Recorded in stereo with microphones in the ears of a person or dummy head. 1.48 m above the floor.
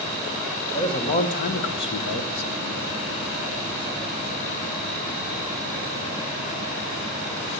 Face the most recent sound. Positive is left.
turn(degrees=75)  # may be behind; listen again after turning